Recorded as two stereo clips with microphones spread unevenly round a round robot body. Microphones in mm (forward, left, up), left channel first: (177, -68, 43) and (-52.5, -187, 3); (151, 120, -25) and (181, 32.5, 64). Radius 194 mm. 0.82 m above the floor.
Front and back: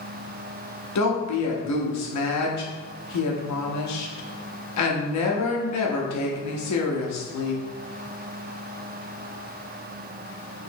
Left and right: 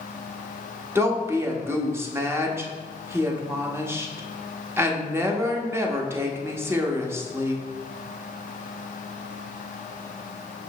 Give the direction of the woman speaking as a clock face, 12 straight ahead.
12 o'clock.